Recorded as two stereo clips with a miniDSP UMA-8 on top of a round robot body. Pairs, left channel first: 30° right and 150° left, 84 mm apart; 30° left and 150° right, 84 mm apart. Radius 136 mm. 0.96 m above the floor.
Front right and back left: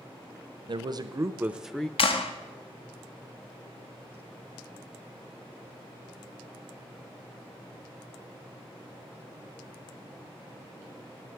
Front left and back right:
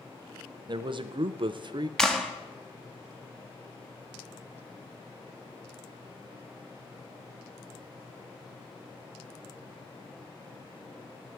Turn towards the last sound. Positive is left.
turn(degrees=-55)